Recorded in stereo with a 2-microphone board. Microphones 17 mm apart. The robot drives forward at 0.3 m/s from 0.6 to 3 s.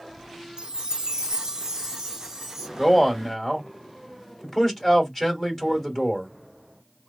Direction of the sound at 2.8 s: 15° left (ahead or behind).